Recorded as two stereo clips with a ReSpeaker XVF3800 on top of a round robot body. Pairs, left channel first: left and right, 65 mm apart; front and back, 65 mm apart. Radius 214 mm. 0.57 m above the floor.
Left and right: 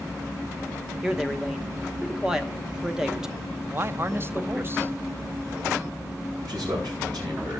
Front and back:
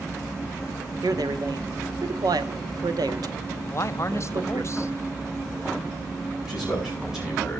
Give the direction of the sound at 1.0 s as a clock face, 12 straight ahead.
6 o'clock.